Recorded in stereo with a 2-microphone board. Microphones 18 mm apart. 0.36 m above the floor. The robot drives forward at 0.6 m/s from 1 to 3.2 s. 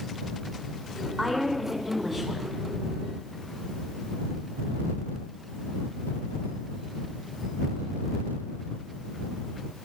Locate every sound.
1.2 s a woman speaking: 15° right (ahead or behind), 3.5 m; by 2.6 s 20° right (ahead or behind), 3 m